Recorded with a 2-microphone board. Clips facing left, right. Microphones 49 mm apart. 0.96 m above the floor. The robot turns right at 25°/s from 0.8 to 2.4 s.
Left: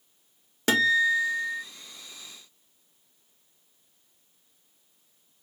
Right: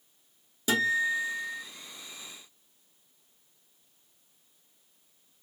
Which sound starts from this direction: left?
A guitar, at 0.7 s.